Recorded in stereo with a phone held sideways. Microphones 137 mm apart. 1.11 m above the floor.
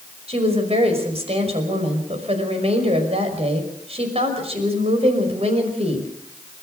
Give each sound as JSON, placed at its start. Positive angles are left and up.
{"t": 0.3, "sound": "a woman speaking", "side_deg": -45, "distance_m": 5.5}